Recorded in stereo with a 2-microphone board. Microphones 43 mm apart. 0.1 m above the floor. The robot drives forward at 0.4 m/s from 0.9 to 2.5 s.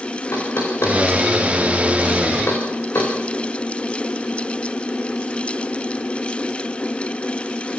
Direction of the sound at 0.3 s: 80° left.